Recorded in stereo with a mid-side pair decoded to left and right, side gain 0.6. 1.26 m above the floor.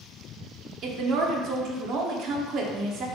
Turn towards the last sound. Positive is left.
turn(degrees=-60)